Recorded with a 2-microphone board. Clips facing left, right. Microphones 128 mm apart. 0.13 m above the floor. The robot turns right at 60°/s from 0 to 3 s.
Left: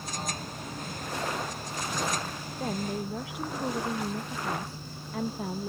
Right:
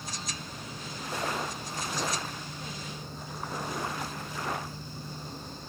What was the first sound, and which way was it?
A woman speaking, 45° left (ahead or behind).